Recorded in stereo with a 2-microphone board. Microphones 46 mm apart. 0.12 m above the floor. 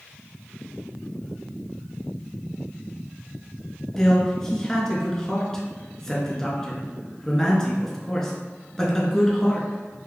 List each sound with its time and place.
4.0 s a man speaking: 10° left (ahead or behind), 1.2 m